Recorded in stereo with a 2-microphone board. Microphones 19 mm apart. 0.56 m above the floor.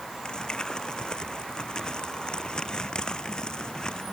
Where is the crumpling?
45° left (ahead or behind).